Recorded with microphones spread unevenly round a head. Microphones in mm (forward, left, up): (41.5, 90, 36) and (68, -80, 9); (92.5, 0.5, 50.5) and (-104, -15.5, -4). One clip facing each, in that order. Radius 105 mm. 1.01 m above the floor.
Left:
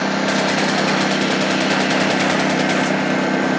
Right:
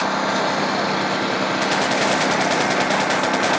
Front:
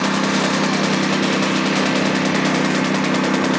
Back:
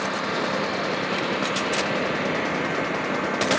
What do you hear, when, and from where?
0.0 s a lawn mower: 35° left; by 3.6 s 40° left